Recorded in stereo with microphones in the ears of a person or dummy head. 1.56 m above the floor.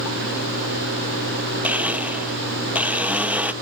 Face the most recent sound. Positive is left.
turn(degrees=-15)  # may be behind; listen again after turning